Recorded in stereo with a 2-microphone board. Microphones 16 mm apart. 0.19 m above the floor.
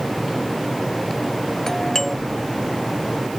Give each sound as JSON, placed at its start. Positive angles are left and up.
{"t": 1.7, "sound": "a doorbell", "side_deg": 25}